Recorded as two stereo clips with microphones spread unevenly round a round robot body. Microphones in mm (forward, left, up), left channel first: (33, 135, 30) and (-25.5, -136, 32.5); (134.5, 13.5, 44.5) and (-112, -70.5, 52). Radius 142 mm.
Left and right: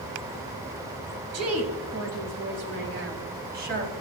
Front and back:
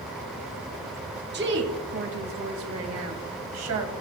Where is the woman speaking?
120° right, 2.5 m; by 3.9 s 155° right, 3 m.